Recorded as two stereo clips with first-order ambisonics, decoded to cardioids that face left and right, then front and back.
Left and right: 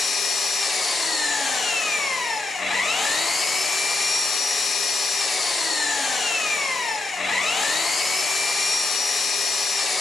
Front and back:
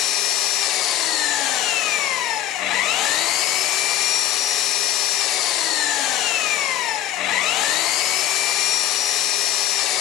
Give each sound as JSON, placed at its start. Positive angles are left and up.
{"t": 0.0, "sound": "an engine running", "azimuth_deg": 20, "distance_m": 0.7}